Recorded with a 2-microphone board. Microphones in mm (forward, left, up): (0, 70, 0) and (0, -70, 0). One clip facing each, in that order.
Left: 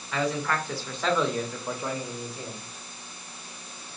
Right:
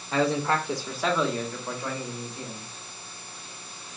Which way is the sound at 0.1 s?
35° right (ahead or behind).